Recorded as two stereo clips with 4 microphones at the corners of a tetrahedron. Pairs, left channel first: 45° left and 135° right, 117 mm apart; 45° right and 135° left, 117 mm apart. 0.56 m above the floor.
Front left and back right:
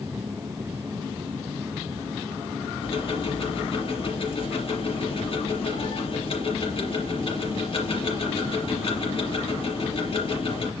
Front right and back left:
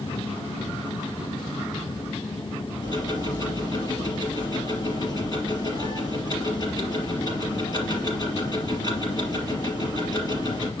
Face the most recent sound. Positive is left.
turn(degrees=10)